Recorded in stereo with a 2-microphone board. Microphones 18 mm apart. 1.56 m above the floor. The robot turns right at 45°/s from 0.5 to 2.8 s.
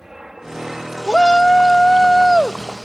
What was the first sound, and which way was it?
An aircraft, 30° right (ahead or behind).